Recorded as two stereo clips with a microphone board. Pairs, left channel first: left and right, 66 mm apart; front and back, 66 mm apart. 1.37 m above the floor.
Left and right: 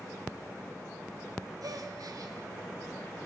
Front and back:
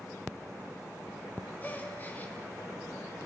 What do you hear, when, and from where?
1.6 s a gasp: 65° right, 3 m